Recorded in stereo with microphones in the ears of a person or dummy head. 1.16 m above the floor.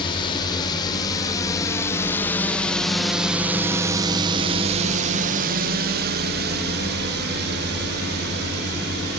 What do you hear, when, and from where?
0.0 s a drone: 30° left (ahead or behind); by 9.2 s 50° right (ahead or behind)